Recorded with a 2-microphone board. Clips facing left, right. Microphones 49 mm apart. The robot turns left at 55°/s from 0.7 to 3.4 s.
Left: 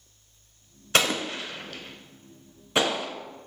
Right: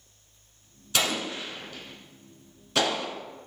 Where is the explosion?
50° left (ahead or behind), 0.6 m; by 3.1 s 10° left (ahead or behind), 0.6 m.